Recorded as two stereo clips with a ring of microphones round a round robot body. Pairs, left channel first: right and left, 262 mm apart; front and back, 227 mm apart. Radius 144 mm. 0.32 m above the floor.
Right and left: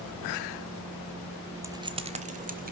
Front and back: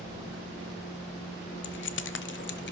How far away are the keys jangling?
About 0.9 m.